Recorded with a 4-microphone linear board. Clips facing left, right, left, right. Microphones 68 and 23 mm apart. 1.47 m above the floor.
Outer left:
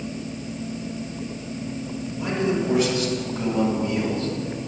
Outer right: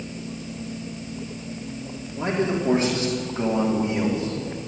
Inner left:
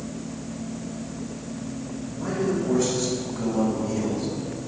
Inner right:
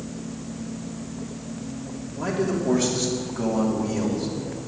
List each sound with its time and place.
2.1 s a man speaking: 40° right (ahead or behind), 4 m; by 4.3 s 20° right (ahead or behind), 3 m